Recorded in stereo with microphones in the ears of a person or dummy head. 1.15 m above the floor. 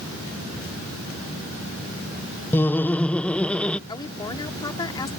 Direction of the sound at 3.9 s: 25° left (ahead or behind).